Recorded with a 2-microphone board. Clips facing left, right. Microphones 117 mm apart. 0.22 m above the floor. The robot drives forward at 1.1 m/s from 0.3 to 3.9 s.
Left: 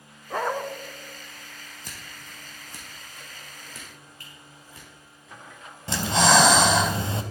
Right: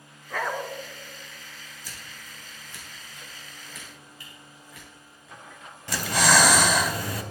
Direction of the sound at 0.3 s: 25° left (ahead or behind).